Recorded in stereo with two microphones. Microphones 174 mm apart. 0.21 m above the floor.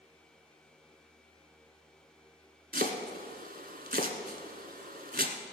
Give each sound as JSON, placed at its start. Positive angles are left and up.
{"t": 2.7, "sound": "chopping", "side_deg": -60, "distance_m": 1.2}